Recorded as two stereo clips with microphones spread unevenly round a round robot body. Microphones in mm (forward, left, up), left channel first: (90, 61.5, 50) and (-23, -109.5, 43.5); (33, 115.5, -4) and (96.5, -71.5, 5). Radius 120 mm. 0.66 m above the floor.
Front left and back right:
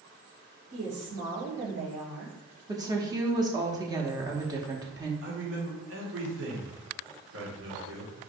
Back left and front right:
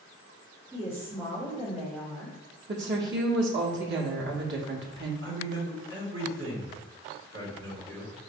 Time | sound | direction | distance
0.7 | a woman speaking | 145° right | 2 m
2.7 | a woman speaking | 55° right | 1.0 m
5.2 | a man speaking | 115° right | 1.7 m